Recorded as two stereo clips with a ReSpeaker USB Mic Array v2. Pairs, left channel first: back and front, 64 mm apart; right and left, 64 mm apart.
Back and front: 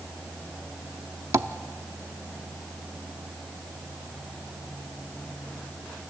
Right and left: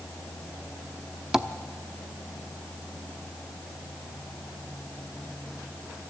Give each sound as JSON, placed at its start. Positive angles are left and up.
{"t": 1.3, "sound": "tapping", "azimuth_deg": 10, "distance_m": 0.7}